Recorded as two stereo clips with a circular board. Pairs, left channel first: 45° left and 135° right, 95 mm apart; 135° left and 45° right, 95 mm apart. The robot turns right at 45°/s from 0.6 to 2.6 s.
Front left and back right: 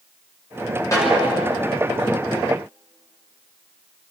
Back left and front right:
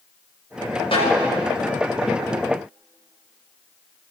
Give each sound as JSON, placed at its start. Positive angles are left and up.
{"t": 0.9, "sound": "a snare drum", "azimuth_deg": 105, "distance_m": 9.0}